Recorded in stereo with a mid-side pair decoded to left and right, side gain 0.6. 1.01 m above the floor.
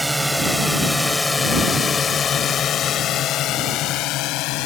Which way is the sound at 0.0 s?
5° right.